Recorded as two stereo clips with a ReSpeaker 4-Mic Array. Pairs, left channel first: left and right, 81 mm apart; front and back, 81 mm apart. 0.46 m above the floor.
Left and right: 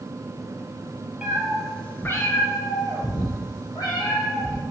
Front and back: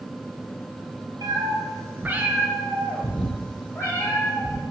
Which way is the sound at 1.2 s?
165° right.